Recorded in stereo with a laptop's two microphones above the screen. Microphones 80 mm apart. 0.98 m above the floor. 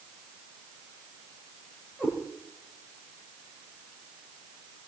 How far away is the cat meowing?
About 5 m.